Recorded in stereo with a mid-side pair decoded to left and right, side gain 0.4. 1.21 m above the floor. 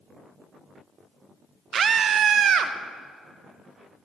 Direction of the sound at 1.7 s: 55° right.